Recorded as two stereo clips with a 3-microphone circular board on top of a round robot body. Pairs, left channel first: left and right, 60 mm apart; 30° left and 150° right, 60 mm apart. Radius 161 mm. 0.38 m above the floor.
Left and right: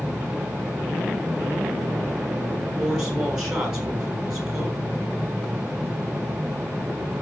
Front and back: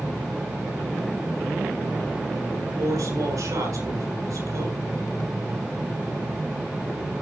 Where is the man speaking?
170° right, 8 m.